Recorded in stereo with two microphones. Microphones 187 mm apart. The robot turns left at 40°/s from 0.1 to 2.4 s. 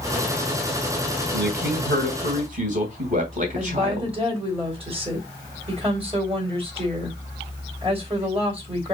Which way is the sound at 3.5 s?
30° right (ahead or behind).